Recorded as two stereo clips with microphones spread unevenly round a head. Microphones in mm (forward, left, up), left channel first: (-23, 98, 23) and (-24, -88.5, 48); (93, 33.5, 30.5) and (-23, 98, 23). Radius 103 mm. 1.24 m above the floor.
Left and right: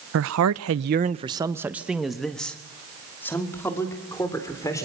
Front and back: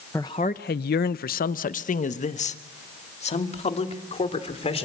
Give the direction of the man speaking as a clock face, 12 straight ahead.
4 o'clock.